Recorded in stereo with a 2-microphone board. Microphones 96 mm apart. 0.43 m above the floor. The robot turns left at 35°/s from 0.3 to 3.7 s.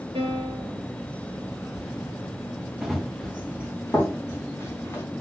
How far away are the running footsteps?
About 2 m.